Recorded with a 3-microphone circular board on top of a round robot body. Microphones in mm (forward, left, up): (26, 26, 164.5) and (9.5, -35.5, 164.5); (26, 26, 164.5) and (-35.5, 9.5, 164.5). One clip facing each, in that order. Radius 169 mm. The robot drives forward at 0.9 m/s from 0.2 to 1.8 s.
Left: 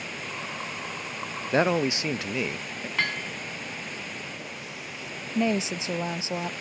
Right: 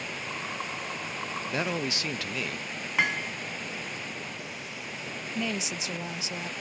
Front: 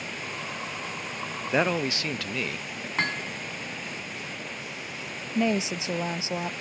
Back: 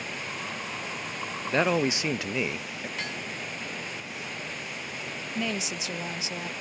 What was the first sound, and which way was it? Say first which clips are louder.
A man speaking: left 9 dB, back 1 dB; 85° left.